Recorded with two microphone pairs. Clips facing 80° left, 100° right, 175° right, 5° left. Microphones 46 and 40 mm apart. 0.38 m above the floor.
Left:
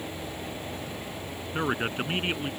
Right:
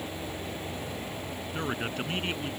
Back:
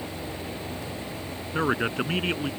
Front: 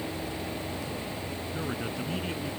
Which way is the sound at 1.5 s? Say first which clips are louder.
Left 5 dB, back 11 dB; 145° left.